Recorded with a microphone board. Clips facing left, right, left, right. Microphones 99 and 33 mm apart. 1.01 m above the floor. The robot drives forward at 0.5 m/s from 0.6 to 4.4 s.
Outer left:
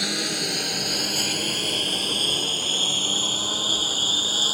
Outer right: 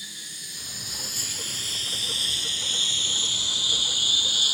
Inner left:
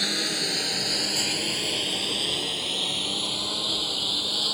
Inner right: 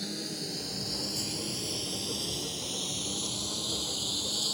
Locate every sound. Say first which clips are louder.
0.0 s a lawn mower: outer left 19 dB, inner left 10 dB; 80° left; by 4.5 s 40° left (ahead or behind)